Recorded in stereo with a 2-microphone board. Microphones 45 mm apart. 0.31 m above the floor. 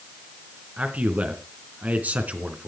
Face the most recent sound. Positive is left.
turn(degrees=-35)  # may be behind; listen again after turning